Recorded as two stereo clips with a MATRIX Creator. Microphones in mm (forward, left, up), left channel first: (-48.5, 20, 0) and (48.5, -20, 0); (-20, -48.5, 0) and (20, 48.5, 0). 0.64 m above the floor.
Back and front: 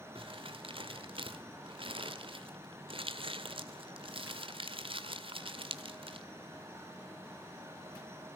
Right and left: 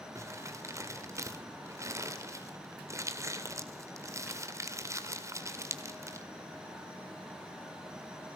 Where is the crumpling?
5° left, 1.9 m.